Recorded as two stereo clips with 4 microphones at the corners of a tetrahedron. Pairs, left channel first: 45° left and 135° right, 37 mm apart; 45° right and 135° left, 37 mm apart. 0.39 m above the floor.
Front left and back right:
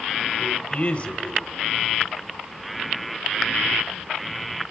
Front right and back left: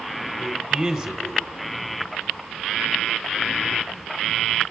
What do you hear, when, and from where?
0.4 s a man speaking: 60° left, 1.3 m